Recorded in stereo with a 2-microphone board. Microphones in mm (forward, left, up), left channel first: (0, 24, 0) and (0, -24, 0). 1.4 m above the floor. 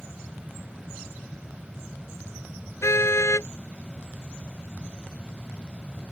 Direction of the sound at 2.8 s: 70° left (ahead or behind).